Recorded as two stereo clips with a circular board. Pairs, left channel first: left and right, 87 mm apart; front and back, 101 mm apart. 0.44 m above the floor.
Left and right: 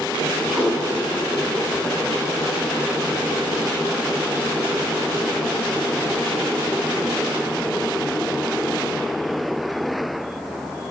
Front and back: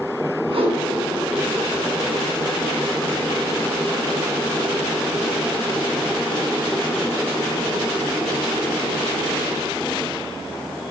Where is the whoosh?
170° right, 5 m.